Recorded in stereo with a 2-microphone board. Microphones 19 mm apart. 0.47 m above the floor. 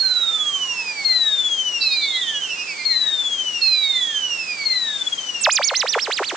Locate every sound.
Only background noise.